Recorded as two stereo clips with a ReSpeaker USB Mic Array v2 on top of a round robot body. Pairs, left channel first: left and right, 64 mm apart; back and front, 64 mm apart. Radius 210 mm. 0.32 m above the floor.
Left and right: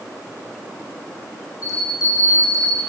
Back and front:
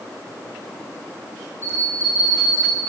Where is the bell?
125° left, 10 m.